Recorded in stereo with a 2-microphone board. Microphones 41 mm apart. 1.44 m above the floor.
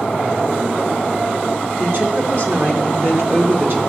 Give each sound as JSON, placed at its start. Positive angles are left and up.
{"t": 1.8, "sound": "a woman speaking", "side_deg": -60, "distance_m": 5.0}